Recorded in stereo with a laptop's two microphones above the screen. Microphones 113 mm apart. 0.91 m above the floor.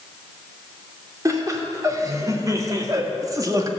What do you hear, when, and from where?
1.2 s laughter: 30° right (ahead or behind), 3 m